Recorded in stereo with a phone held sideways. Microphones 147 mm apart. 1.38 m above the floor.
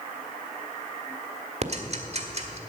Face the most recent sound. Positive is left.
turn(degrees=-50)  # may be behind; listen again after turning